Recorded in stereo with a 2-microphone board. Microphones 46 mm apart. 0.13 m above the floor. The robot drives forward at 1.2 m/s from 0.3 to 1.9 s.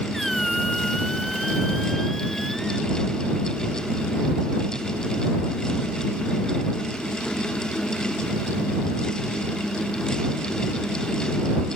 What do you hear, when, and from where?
0.1 s a squeak: 5° left (ahead or behind); by 2.9 s centre (ahead or behind)